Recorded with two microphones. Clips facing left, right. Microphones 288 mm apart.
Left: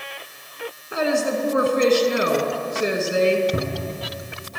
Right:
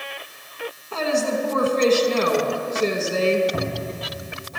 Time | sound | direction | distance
0.9 | a woman speaking | 15° left (ahead or behind) | 1.3 m
3.5 | a cupboard door | 35° left (ahead or behind) | 1.8 m